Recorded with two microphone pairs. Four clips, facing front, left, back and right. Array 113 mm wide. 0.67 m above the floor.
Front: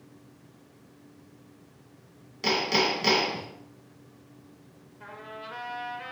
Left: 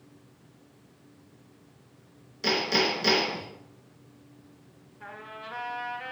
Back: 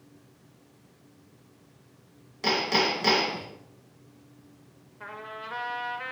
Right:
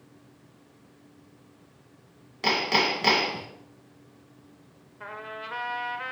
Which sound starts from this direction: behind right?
A trumpet, at 5.0 s.